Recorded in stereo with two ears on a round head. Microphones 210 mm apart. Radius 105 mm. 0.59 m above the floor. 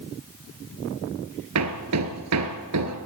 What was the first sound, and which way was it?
Hammering, 75° right (ahead or behind).